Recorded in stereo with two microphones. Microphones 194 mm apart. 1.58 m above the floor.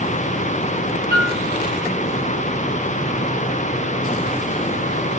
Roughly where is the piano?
Right.